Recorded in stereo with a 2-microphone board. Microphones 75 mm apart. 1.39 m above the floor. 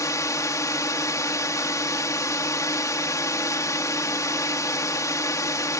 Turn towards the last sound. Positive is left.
turn(degrees=50)  # may be behind; listen again after turning